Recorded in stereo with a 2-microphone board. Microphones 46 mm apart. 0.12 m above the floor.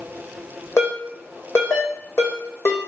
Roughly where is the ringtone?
Left.